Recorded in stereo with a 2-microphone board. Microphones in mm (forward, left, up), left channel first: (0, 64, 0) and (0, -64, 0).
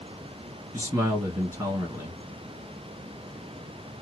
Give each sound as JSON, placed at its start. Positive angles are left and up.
{"t": 0.7, "sound": "a man speaking", "side_deg": -20, "distance_m": 1.9}